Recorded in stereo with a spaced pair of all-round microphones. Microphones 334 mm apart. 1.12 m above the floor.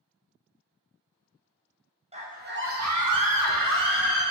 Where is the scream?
20° right (ahead or behind), 0.7 m; by 4.2 s 60° right (ahead or behind), 0.8 m.